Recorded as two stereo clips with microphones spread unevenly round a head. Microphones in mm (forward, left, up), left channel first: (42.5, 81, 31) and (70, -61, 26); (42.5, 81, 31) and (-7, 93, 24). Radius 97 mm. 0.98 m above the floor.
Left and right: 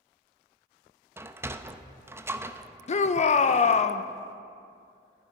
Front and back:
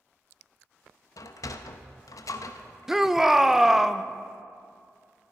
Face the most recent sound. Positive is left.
turn(degrees=95)